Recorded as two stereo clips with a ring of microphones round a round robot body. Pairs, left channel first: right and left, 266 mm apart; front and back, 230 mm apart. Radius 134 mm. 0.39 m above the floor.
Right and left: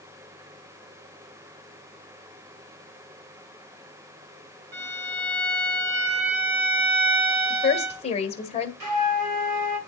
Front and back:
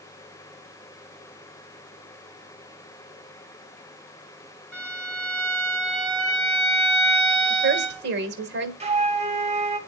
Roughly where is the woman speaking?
Behind right.